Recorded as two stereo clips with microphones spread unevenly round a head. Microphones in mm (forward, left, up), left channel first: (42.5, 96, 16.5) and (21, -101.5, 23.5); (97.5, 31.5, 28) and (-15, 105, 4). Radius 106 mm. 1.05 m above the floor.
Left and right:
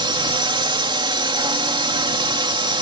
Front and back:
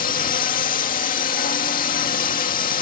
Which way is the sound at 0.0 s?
30° right.